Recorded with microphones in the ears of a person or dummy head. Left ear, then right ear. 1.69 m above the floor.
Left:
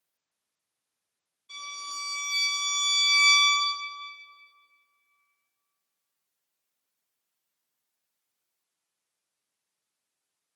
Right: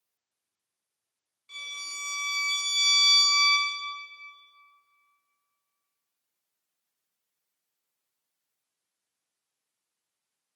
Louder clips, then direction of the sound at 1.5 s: Even; 30° right (ahead or behind).